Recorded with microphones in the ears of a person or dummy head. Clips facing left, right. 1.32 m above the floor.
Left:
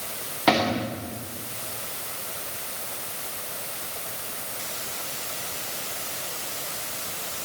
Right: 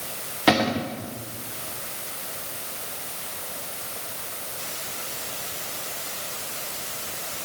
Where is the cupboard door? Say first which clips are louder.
Right 1 dB; 10° right (ahead or behind), 1.0 m.